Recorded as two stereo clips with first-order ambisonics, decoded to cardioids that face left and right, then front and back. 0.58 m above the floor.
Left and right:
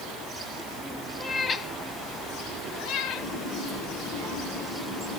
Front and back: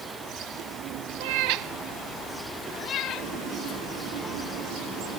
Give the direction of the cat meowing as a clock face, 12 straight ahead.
6 o'clock.